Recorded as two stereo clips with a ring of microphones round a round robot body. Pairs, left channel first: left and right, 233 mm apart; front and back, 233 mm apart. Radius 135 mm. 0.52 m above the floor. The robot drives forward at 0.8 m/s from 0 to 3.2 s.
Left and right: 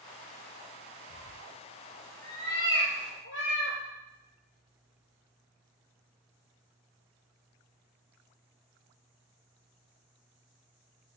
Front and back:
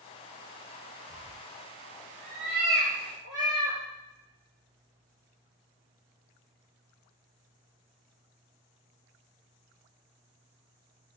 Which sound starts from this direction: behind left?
A cat meowing, at 1.1 s.